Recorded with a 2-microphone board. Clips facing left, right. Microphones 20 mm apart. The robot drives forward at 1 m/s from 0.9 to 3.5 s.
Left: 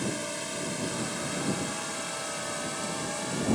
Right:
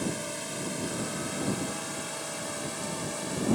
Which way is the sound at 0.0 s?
Centre (ahead or behind).